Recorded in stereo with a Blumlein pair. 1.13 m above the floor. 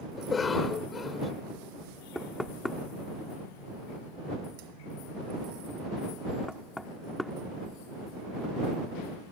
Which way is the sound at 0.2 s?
20° left.